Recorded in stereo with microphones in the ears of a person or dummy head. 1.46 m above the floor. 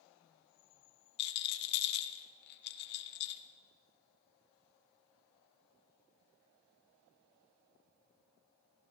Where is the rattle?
60° left (ahead or behind), 1.2 m.